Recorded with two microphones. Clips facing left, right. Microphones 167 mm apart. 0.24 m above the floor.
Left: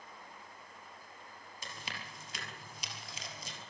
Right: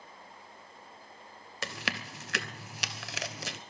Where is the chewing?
80° right, 0.8 m.